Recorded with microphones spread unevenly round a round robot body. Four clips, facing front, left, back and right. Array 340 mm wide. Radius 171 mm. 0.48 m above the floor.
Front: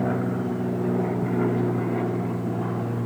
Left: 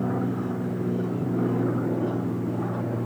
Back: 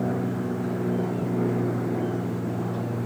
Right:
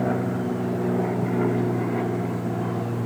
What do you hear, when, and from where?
Only background noise.